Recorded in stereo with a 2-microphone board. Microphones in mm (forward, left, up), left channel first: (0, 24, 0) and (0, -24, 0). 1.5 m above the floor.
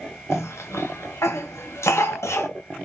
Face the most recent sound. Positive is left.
turn(degrees=80)